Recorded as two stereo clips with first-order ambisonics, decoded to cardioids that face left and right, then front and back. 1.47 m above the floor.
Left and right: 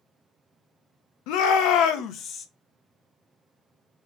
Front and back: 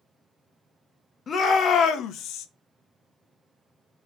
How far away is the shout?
About 1.0 m.